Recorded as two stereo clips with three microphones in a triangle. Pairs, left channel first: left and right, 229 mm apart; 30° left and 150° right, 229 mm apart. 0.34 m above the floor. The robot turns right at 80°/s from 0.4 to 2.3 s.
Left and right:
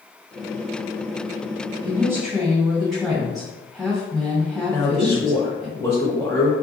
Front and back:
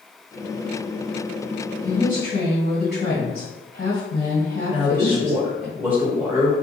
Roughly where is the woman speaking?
Ahead right.